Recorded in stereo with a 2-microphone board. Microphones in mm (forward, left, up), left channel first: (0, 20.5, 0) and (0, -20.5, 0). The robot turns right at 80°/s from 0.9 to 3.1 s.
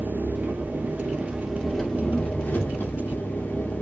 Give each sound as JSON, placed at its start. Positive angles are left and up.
{"t": 0.0, "sound": "an engine running", "azimuth_deg": -60, "distance_m": 0.8}